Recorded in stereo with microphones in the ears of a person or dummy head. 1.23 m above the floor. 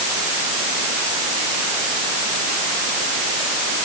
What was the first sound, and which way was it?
Only background noise.